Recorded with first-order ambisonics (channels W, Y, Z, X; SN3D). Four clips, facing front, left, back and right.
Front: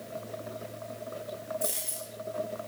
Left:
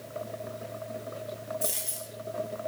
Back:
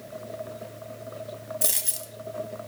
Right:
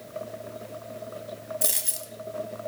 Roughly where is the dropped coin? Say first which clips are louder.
Right 3 dB, back 4 dB; behind right.